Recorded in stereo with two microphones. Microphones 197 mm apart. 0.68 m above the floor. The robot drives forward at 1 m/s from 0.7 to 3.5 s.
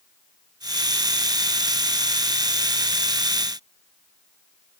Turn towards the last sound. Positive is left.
No sound to turn to.